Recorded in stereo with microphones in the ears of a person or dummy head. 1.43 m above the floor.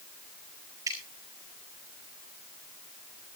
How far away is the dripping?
About 5 m.